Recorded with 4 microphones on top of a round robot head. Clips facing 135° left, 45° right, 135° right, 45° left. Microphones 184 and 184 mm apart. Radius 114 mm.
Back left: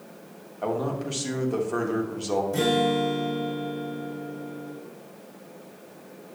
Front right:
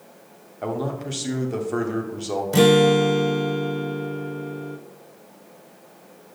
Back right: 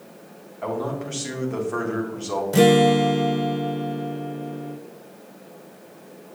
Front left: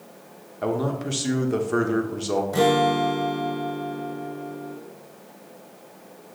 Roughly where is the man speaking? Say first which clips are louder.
Even, front left 2 dB; ahead left.